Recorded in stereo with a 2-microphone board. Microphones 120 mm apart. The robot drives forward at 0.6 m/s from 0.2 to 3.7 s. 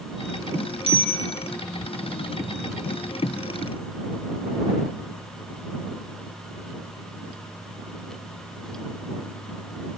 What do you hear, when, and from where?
0.9 s a bicycle bell: 50° right (ahead or behind), 4 m